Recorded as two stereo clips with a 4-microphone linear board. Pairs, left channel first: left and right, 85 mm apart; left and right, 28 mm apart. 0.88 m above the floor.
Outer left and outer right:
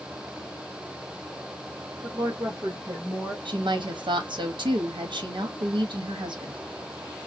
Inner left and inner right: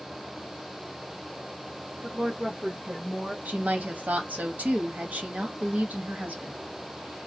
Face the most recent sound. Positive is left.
turn(degrees=-70)  # may be behind; listen again after turning